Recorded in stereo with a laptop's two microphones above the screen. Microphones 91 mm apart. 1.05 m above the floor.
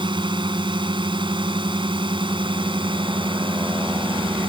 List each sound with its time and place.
0.0 s a drone: 60° right (ahead or behind); by 4.5 s 65° right (ahead or behind)